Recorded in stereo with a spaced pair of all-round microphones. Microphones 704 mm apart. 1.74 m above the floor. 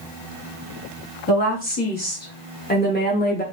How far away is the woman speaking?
About 4 m.